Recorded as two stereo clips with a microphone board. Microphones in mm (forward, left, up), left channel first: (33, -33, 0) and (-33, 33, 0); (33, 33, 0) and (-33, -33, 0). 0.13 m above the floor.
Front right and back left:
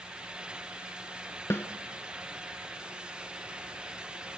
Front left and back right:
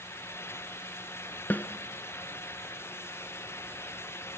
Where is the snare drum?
5° right, 1.0 m.